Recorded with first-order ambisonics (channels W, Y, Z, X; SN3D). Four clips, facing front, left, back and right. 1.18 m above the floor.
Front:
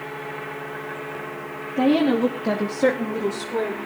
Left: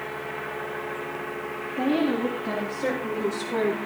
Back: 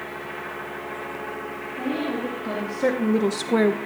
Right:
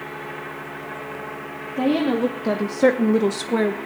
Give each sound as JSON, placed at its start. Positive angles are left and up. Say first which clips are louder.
{"t": 1.8, "sound": "a woman speaking", "louder": "right 4 dB, front 9 dB", "azimuth_deg": -35, "distance_m": 2.0}